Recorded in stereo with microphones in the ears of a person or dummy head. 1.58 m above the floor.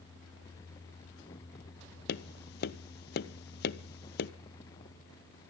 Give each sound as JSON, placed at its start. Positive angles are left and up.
{"t": 2.1, "sound": "tapping", "side_deg": 60, "distance_m": 0.8}